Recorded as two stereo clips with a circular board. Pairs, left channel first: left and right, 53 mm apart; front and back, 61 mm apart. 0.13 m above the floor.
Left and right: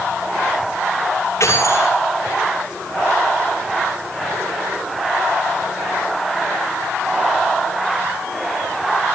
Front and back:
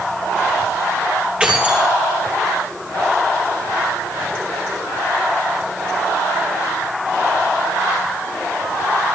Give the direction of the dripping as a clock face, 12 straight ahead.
I don't hear dripping.